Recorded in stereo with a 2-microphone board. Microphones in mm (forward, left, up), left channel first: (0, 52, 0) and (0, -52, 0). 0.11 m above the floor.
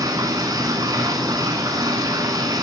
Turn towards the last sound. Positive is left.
turn(degrees=-40)  # may be behind; listen again after turning